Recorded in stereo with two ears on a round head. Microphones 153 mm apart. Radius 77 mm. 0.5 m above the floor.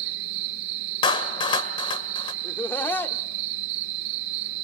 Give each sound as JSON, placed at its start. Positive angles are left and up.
{"t": 0.0, "sound": "an insect", "side_deg": -80, "distance_m": 2.0}
{"t": 1.0, "sound": "a clap", "side_deg": 30, "distance_m": 2.0}
{"t": 2.4, "sound": "laughter", "side_deg": 10, "distance_m": 1.2}